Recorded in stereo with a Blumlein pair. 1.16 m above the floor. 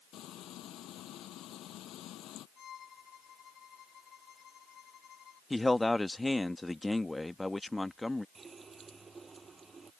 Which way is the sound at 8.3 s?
15° right.